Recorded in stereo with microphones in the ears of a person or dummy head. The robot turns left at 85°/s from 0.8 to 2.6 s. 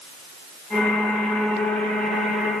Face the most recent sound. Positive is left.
No sound to turn to.